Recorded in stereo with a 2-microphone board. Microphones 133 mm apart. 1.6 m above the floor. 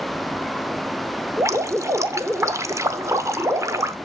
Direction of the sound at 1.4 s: 20° right (ahead or behind).